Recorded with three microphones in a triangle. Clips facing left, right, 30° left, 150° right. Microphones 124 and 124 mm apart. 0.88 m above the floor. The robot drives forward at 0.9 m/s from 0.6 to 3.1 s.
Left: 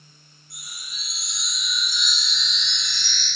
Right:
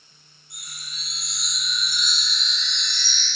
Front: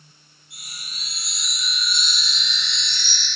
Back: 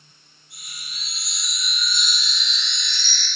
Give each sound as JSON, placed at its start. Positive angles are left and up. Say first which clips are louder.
{"t": 0.5, "sound": "a chime", "louder": "even, front 1 dB", "azimuth_deg": -160, "distance_m": 3.5}